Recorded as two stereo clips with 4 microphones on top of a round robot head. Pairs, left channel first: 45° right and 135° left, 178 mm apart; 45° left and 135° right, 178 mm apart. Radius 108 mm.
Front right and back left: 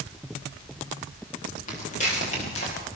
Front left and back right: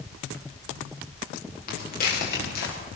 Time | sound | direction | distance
1.7 | footsteps | 5° left | 7.5 m